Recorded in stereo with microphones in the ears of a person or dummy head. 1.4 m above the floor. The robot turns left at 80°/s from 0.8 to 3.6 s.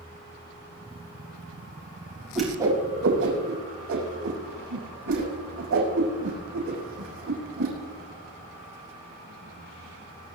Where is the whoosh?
5° left (ahead or behind), 6 m; by 7.7 s 85° right, 6 m.